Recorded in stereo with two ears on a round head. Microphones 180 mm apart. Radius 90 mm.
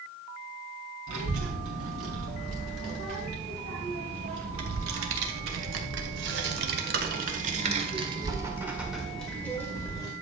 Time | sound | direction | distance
1.1 | a child speaking | 75° right (ahead or behind) | 4.5 m